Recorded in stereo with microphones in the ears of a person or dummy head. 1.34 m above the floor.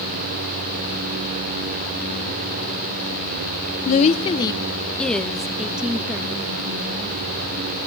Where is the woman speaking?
45° left (ahead or behind), 0.7 m; by 7.2 s 15° right (ahead or behind), 1.9 m.